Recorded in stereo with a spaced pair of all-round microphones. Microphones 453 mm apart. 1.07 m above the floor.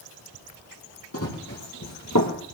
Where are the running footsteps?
30° left (ahead or behind), 2.5 m; by 2.3 s 40° left (ahead or behind), 1.6 m.